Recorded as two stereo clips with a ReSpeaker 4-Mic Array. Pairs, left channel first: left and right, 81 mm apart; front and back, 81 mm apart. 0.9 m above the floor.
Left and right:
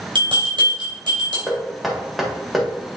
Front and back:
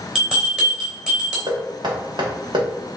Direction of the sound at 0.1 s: 100° right.